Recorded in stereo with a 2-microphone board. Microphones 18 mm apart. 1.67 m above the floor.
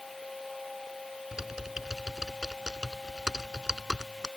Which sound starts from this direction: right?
Typing on a keyboard, at 1.3 s.